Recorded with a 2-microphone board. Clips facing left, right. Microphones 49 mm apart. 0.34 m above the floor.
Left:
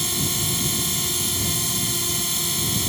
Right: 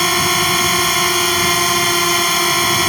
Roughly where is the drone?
Right.